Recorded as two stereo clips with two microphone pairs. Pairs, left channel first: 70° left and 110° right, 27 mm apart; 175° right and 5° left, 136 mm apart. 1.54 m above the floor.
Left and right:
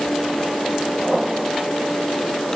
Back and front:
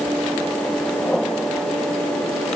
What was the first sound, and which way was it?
Only background noise.